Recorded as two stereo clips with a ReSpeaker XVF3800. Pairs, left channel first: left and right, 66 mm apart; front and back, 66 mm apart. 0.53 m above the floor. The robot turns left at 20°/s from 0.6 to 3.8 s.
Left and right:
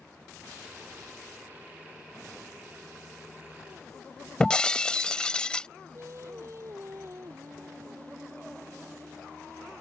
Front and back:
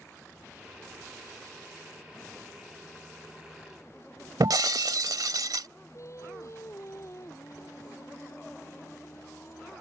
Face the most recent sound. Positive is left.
turn(degrees=-45)